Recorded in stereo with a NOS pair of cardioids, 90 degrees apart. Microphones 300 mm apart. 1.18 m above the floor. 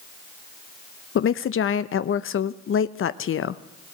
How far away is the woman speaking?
About 0.8 m.